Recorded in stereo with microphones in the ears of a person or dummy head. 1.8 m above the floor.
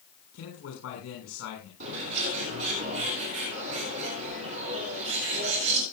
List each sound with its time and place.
0.3 s a man speaking: 75° left (ahead or behind), 6.5 m
1.8 s a bird: 85° right, 7.5 m